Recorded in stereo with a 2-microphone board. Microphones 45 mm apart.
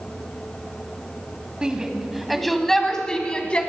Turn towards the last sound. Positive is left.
turn(degrees=25)  # may be behind; listen again after turning